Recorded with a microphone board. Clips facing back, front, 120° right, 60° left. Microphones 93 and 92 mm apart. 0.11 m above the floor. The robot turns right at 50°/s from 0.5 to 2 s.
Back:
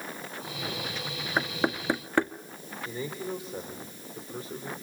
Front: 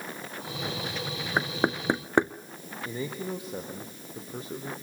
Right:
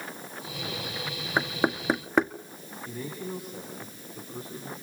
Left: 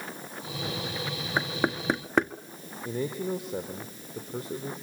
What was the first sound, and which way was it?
Knocking, 65° right.